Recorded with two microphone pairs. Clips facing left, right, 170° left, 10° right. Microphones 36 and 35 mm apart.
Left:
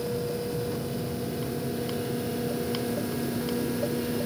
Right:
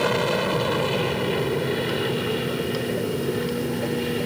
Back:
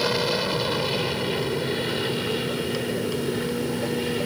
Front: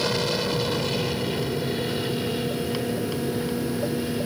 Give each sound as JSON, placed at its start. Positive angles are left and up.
{"t": 0.0, "sound": "an aircraft", "azimuth_deg": -110}